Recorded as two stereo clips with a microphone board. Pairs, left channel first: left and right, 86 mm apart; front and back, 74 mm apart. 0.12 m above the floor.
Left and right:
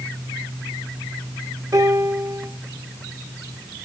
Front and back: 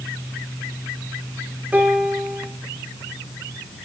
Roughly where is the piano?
Behind right.